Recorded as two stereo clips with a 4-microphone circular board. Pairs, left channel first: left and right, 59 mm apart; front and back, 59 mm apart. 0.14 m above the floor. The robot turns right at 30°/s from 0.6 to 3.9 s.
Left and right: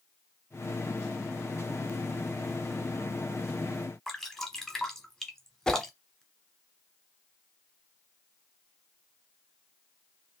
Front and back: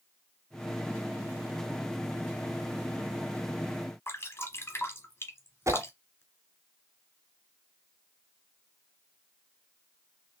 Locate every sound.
4.1 s dripping: 10° left, 1.9 m
5.7 s a whoosh: 165° left, 0.7 m